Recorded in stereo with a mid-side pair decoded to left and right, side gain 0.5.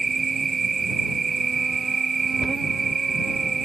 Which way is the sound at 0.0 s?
25° right.